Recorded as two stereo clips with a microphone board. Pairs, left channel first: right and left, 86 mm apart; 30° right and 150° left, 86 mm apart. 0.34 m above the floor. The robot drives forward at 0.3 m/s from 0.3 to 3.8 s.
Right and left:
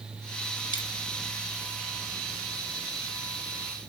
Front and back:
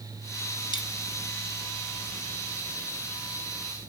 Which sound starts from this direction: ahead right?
A dropped coin, at 0.7 s.